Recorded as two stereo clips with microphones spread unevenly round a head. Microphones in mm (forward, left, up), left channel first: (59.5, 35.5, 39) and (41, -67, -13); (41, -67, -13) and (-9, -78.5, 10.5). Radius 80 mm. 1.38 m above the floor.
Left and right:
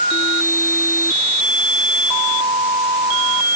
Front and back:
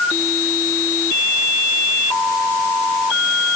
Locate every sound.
Only background noise.